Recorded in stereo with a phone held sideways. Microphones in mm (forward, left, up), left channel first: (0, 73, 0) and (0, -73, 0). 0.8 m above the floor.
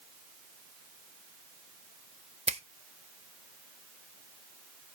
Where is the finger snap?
45° right (ahead or behind), 0.6 m.